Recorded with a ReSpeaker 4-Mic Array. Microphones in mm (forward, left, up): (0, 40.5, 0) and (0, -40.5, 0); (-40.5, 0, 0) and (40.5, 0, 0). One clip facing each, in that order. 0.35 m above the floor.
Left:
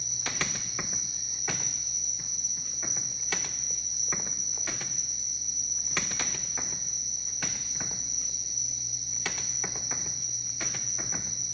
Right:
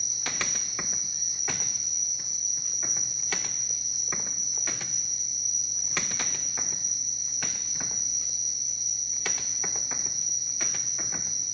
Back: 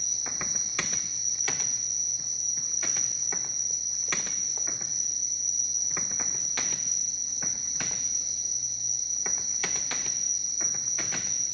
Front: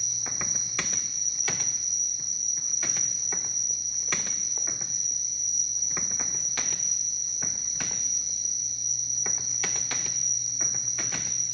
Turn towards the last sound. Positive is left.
turn(degrees=-20)